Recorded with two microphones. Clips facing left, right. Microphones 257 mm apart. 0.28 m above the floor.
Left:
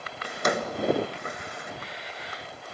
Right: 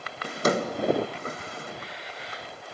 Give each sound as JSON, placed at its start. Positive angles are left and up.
{"t": 0.2, "sound": "a drawer", "side_deg": -35, "distance_m": 0.9}